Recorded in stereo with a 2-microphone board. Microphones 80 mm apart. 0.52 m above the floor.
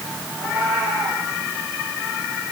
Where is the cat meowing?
10° right (ahead or behind), 9.5 m.